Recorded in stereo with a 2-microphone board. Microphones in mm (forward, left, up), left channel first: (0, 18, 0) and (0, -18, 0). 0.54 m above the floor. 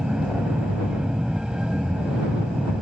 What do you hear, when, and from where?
0.0 s an aircraft: 20° right (ahead or behind)